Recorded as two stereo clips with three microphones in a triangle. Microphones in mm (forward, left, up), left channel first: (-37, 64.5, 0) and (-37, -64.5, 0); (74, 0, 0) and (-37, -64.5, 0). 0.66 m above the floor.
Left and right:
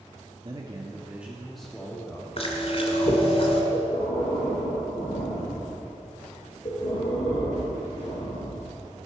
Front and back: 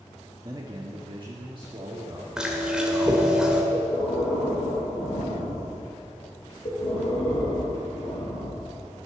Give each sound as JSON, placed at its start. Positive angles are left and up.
{"t": 0.4, "sound": "a man speaking", "azimuth_deg": -110, "distance_m": 1.2}
{"t": 2.4, "sound": "chewing", "azimuth_deg": 125, "distance_m": 2.0}
{"t": 3.7, "sound": "breathing", "azimuth_deg": 50, "distance_m": 4.5}